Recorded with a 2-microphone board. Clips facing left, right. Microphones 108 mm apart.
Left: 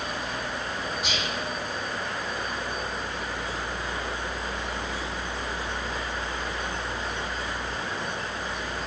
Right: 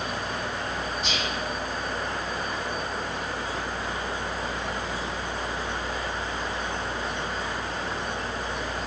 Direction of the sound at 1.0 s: 10° left (ahead or behind).